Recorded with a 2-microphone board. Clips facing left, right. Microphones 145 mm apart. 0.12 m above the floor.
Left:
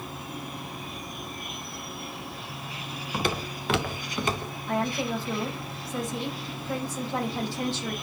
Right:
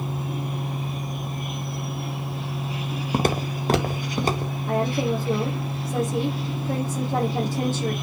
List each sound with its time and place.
3.1 s footsteps: 45° right (ahead or behind), 1.9 m; by 4.5 s 35° right (ahead or behind), 2.5 m
4.7 s a woman speaking: 45° right (ahead or behind), 5 m